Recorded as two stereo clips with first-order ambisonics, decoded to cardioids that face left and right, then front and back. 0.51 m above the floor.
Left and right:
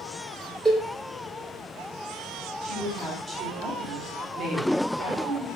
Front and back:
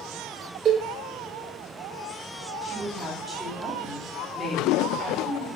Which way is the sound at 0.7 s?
175° right.